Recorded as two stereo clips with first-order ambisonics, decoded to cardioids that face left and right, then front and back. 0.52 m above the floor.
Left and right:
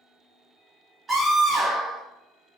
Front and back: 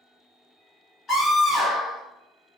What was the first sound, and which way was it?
A scream, 35° right.